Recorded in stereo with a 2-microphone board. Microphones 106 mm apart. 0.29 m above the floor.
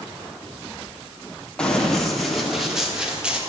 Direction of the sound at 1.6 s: 10° left (ahead or behind).